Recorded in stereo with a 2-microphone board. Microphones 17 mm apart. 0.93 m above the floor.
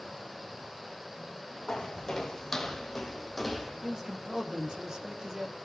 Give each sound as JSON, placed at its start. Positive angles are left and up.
{"t": 1.7, "sound": "footsteps", "side_deg": 40, "distance_m": 3.0}
{"t": 3.8, "sound": "a man speaking", "side_deg": -40, "distance_m": 1.8}